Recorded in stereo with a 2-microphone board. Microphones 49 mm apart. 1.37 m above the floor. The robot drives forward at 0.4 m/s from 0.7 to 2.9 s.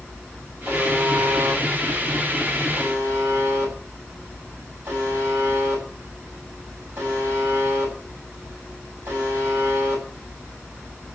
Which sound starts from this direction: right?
A buzzer, at 0.7 s.